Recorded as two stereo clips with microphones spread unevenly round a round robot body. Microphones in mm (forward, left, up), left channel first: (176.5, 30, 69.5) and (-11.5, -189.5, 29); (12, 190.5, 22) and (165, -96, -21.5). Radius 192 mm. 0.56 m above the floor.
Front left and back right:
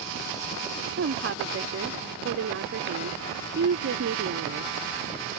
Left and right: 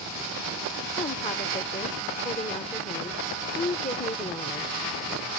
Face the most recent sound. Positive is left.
turn(degrees=-165)